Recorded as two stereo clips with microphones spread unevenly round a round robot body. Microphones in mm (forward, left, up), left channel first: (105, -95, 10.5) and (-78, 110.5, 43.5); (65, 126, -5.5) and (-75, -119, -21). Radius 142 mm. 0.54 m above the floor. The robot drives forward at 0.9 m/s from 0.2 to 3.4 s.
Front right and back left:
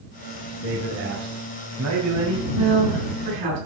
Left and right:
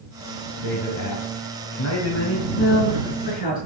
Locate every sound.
0.6 s a man speaking: 75° left, 3 m; by 2.5 s 110° left, 3 m
2.6 s a woman speaking: 120° left, 6 m; by 3.6 s 125° left, 6.5 m